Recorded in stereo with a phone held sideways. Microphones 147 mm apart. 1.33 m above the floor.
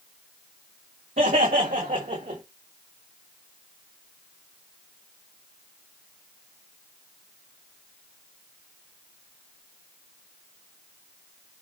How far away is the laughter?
About 3 m.